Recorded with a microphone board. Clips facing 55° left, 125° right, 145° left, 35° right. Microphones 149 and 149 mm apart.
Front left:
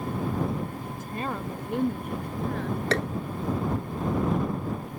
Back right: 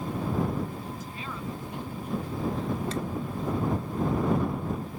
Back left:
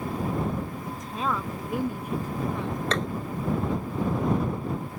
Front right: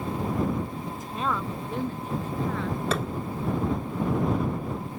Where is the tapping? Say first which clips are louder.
Front left 5 dB, back left 1 dB; 50° left.